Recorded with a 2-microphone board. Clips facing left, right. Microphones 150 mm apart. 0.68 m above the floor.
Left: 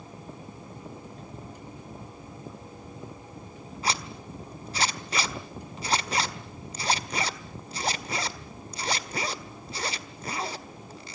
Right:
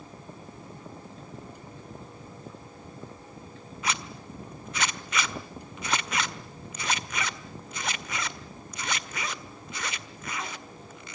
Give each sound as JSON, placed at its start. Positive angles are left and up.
{"t": 3.8, "sound": "a zipper", "side_deg": 35, "distance_m": 1.4}